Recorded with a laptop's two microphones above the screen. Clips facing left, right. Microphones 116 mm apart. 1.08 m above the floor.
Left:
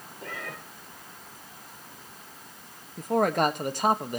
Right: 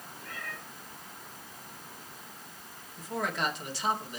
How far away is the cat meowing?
About 2 m.